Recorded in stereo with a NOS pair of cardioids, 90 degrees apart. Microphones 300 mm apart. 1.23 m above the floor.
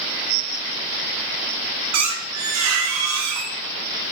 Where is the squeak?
65° right, 0.7 m.